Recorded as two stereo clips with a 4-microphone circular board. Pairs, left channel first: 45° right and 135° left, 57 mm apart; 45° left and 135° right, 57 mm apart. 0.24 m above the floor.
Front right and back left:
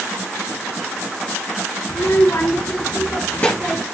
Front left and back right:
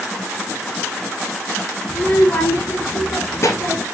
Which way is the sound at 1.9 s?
20° right.